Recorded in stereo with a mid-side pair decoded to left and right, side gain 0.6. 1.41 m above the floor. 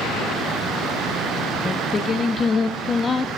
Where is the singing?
25° left, 0.5 m.